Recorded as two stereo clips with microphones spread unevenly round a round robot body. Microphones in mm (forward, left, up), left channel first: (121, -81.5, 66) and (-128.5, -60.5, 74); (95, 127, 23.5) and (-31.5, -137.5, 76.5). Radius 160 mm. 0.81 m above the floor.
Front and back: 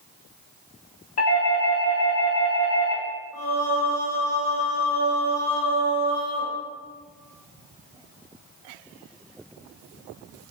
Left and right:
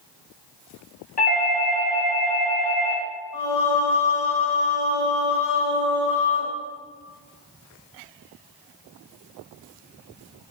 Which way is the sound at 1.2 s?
10° left.